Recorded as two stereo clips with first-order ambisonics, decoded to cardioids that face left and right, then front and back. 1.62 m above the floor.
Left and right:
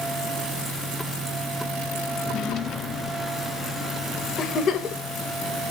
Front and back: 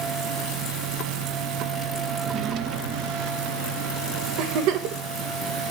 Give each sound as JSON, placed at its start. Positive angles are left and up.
{"t": 2.2, "sound": "a drawer", "azimuth_deg": 140, "distance_m": 1.0}
{"t": 4.4, "sound": "a giggle", "azimuth_deg": 155, "distance_m": 1.7}